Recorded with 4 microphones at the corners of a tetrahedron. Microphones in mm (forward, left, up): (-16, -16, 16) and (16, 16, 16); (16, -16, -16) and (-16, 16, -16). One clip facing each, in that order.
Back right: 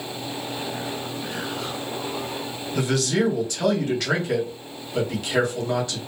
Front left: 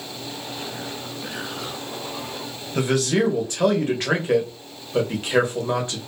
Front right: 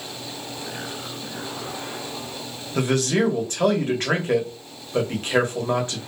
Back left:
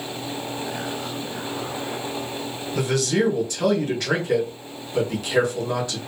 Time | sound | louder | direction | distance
2.8 | a man speaking | front left 2 dB, front right 1 dB | 5° right | 1.1 m